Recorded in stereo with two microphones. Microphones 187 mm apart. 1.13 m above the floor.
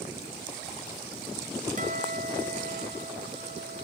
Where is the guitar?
45° right (ahead or behind), 2.5 m.